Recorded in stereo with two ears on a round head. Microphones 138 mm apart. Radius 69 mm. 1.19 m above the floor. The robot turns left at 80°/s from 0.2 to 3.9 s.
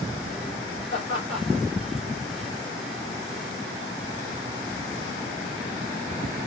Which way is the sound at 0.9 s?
45° left (ahead or behind).